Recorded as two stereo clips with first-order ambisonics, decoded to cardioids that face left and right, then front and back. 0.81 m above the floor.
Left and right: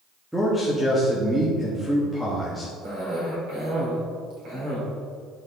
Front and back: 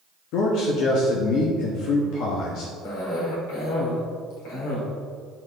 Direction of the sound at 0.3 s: 5° right.